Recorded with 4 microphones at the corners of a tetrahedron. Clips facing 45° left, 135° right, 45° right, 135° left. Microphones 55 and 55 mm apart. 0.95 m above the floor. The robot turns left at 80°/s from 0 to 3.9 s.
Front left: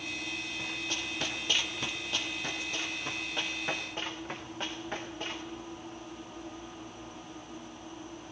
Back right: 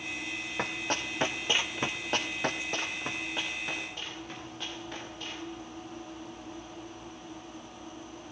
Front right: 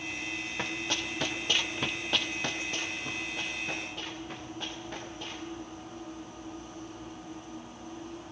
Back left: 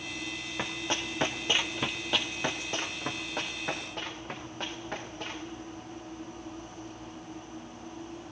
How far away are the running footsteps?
About 2.0 m.